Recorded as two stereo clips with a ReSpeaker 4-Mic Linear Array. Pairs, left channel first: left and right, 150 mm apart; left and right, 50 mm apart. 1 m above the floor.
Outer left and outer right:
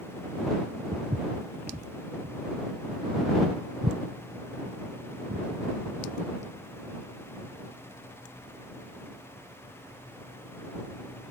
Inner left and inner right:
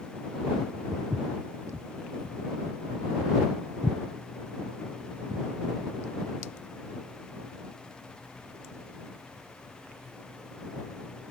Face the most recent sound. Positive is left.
turn(degrees=-85)